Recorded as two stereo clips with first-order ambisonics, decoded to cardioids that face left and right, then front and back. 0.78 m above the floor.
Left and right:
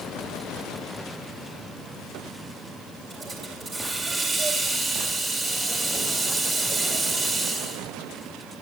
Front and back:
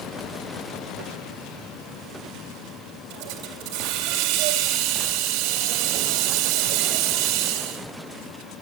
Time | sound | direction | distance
3.1 | a hiss | 165° right | 2 m